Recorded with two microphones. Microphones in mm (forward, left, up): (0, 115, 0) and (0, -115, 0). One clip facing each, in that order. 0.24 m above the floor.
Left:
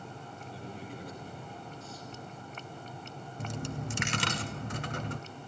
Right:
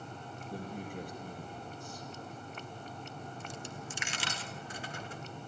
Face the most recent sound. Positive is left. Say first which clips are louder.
# left 6 dB
turn(degrees=70)  # may be behind; listen again after turning